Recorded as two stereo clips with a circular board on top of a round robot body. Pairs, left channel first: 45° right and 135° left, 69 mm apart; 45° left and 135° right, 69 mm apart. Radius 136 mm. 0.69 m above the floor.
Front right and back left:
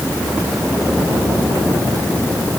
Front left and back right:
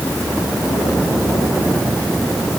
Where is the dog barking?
I don't hear a dog barking.